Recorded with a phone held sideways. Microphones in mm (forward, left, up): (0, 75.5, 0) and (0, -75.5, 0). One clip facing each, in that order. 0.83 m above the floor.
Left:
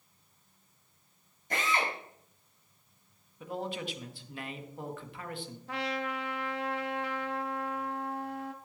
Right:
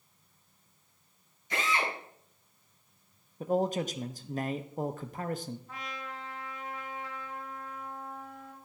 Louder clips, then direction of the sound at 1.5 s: Even; 50° left (ahead or behind).